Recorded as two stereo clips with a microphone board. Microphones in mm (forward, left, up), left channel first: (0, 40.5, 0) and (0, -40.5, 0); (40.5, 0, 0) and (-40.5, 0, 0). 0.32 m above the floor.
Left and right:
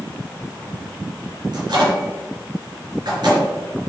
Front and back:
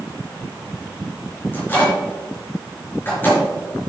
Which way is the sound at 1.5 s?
65° right.